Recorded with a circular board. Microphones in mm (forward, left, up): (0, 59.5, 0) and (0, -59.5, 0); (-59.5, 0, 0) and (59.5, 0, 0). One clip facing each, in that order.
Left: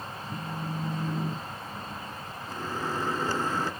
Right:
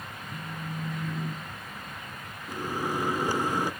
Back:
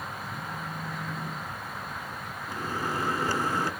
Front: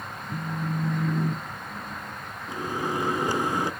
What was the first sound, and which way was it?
A phone buzzing, 20° left.